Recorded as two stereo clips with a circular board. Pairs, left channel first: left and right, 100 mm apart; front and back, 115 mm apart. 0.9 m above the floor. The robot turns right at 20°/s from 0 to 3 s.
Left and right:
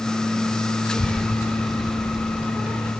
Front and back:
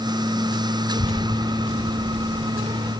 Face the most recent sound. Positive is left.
turn(degrees=-155)